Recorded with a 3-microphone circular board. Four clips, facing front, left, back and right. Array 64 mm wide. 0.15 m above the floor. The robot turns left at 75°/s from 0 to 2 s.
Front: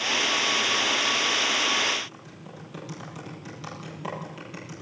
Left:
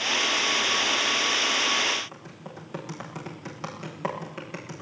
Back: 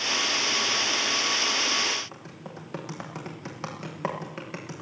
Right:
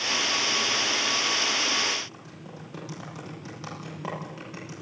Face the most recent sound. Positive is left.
turn(degrees=155)